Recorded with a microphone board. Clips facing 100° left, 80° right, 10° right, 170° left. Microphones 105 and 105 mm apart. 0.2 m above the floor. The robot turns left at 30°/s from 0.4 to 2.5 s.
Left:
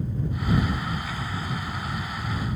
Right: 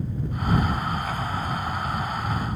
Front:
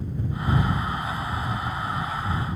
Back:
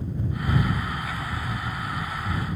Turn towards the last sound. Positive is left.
No sound to turn to.